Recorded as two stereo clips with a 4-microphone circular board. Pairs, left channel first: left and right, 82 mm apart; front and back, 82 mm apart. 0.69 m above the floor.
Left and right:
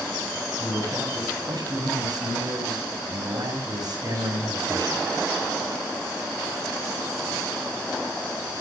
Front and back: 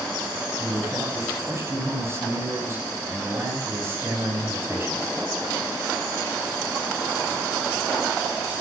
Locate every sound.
0.6 s a man speaking: 120° right, 6 m